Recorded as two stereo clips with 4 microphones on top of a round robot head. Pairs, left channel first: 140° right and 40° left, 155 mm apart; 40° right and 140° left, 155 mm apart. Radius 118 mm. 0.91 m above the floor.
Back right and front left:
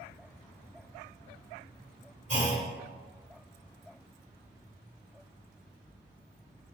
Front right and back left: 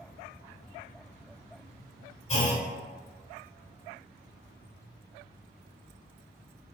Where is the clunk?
5° left, 1.7 m.